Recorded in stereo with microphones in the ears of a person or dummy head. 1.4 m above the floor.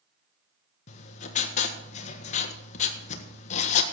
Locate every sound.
0.9 s writing: 40° left (ahead or behind), 1.4 m